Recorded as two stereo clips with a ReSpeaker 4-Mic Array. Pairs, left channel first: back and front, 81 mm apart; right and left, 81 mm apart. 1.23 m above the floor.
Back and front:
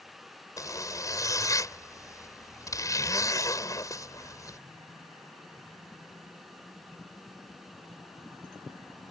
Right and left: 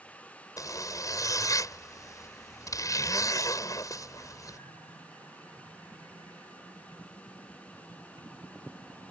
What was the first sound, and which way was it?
A zipper, 135° right.